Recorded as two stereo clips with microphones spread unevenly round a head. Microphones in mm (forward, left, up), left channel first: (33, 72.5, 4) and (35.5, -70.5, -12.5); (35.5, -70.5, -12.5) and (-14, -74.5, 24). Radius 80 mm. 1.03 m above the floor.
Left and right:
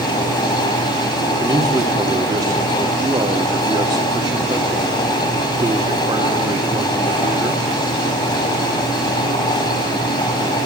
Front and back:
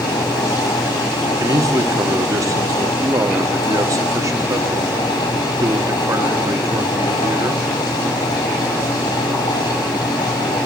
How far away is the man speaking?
About 1.5 m.